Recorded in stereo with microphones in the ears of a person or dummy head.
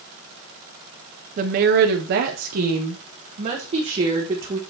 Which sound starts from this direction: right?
A woman speaking, at 1.4 s.